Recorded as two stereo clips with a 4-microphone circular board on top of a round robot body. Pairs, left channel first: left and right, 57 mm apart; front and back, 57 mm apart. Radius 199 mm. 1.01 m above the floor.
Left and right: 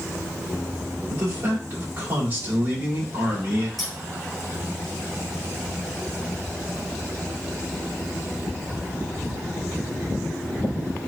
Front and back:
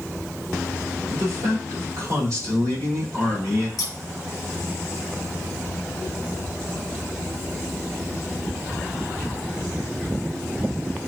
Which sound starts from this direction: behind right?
A man speaking, at 1.1 s.